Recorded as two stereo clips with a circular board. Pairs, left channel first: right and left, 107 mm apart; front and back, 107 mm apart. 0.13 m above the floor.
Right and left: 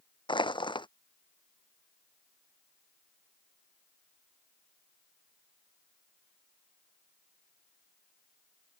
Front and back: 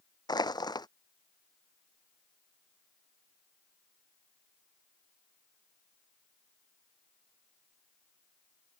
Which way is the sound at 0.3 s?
50° right.